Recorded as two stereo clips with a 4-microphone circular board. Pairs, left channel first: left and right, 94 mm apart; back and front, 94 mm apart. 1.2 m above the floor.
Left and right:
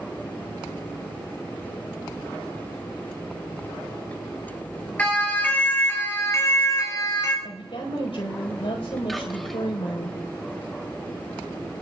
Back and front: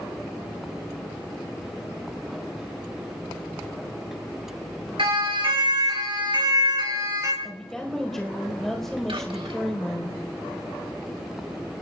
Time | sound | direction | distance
5.0 | a siren | 15° left | 5.5 m
7.4 | a woman speaking | 95° left | 4 m
9.1 | whispering | 5° left | 3 m